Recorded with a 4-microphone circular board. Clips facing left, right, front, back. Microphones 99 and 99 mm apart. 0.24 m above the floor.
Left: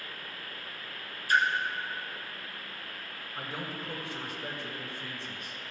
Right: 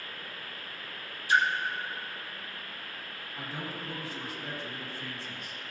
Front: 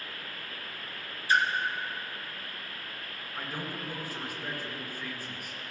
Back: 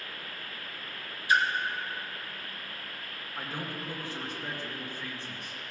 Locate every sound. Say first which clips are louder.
1.3 s a splash: right 1 dB, even; 50° left, 2 m
3.4 s a man speaking: left 1 dB, even; 80° left, 3 m